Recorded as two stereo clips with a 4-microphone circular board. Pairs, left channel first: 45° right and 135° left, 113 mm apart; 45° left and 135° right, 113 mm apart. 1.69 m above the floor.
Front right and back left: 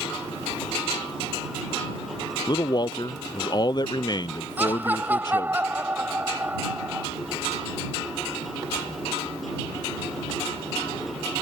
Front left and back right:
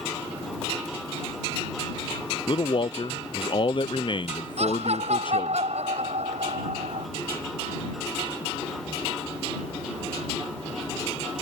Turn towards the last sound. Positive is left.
turn(degrees=-150)